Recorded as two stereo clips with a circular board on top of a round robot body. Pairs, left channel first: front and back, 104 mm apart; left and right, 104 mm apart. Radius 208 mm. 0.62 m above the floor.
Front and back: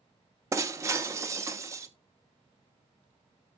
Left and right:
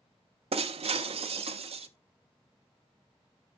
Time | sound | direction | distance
0.5 | breaking glass | 115° right | 0.5 m